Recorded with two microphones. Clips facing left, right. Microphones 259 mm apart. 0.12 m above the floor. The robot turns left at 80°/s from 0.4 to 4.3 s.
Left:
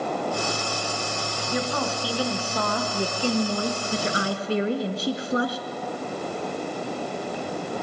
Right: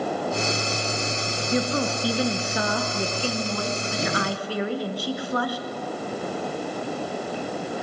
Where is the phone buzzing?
No phone buzzing in this recording.